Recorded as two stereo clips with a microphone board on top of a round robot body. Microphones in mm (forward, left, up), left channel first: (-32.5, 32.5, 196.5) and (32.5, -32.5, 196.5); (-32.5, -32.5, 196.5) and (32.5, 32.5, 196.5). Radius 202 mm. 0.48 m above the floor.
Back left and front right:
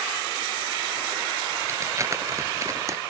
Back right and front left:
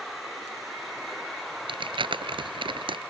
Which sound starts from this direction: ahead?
Crumpling, at 1.7 s.